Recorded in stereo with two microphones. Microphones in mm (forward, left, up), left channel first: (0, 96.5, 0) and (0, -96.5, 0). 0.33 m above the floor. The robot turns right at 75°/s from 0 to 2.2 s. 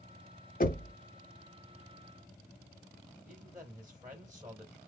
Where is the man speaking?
15° right (ahead or behind), 1.3 m.